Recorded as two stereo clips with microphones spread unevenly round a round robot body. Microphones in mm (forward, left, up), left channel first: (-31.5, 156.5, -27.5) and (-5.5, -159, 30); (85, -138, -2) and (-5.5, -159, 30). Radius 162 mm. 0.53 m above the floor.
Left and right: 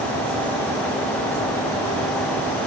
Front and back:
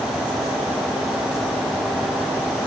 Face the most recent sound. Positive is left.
No sound to turn to.